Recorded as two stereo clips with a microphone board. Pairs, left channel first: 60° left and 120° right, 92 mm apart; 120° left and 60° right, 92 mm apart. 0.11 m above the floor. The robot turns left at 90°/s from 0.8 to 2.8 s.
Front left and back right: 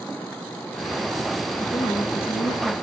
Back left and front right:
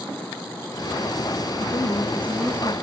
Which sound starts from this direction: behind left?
A woman speaking, at 1.6 s.